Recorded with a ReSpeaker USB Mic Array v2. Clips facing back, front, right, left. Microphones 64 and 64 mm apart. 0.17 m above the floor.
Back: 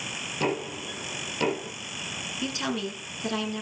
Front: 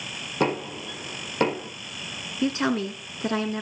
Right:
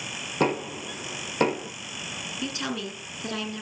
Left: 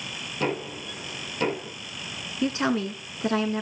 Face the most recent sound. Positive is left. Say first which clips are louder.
# front 7 dB, left 8 dB
turn(degrees=40)